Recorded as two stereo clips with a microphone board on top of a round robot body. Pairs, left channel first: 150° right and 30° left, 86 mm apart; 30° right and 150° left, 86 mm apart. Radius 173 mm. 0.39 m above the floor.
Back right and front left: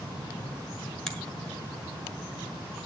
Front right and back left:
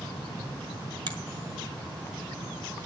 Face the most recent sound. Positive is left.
turn(degrees=125)